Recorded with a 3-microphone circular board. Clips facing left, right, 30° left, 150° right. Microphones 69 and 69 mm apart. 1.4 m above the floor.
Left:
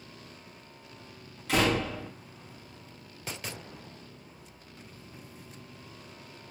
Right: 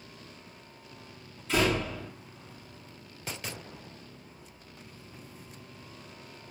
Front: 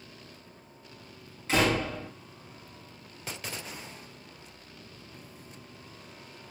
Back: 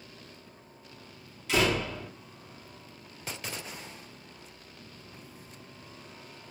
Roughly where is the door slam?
Left.